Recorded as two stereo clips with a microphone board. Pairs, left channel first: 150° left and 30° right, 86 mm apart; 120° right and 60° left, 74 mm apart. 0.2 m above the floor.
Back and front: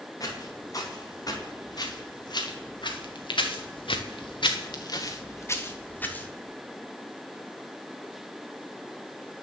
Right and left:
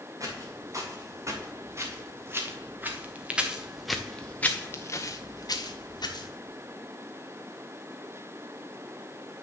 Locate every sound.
0.2 s footsteps: 105° left, 3 m; by 6.3 s 135° right, 1.6 m